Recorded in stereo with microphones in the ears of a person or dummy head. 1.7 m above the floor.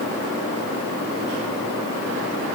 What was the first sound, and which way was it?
Only background noise.